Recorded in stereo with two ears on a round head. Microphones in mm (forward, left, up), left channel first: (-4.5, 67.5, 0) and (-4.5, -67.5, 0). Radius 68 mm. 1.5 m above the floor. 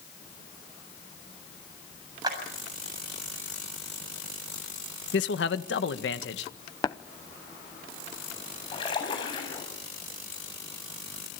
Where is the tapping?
20° left (ahead or behind), 0.7 m.